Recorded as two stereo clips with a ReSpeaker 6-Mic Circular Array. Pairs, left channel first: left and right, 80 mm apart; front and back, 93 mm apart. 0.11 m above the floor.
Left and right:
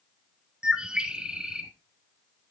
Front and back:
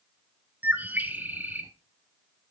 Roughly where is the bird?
Behind right.